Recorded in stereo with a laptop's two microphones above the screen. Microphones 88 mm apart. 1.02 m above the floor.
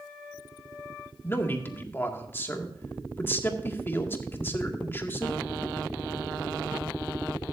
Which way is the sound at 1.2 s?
25° left (ahead or behind).